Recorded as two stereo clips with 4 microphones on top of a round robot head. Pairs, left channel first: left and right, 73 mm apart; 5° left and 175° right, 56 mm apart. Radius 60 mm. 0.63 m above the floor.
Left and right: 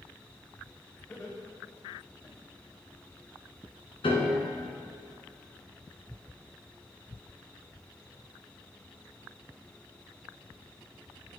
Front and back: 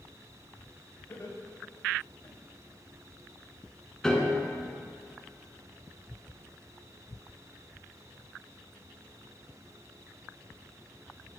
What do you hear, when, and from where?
1.1 s laughter: 35° left, 4.5 m; by 2.4 s 50° left, 4 m
4.0 s a piano: 85° left, 2.5 m